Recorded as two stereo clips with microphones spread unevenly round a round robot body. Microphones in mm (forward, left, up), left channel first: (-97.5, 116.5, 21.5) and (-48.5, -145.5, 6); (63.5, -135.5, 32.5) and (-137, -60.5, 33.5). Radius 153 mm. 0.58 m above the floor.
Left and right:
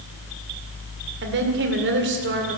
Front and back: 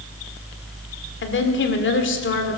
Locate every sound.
1.2 s a woman speaking: 35° right, 2 m